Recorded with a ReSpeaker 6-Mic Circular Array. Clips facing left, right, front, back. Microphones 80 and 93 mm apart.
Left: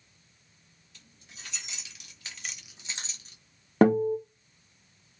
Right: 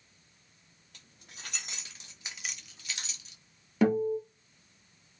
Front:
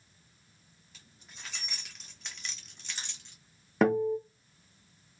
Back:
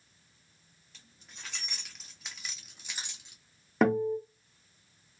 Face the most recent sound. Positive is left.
turn(degrees=90)